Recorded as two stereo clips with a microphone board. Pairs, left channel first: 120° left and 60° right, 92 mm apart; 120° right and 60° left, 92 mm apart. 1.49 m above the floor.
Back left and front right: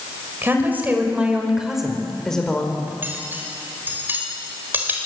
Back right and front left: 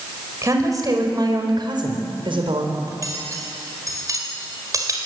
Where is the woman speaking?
5° left, 5.5 m; by 2.8 s 45° left, 4.5 m.